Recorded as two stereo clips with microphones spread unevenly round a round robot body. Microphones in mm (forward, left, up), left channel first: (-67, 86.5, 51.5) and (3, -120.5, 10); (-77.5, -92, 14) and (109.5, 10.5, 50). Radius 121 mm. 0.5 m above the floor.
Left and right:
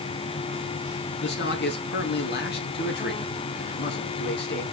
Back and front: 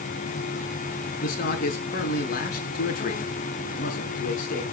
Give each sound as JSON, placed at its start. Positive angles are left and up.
{"t": 1.2, "sound": "a man speaking", "azimuth_deg": 155, "distance_m": 5.5}